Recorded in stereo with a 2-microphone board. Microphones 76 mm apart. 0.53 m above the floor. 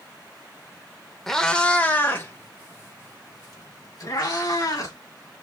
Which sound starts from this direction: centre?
A cat meowing, at 1.3 s.